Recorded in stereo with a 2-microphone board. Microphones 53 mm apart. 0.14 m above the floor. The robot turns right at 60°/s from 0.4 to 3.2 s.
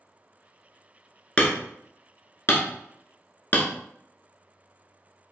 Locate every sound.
1.4 s hammering: 20° left (ahead or behind), 0.7 m; by 3.7 s 35° left (ahead or behind), 0.7 m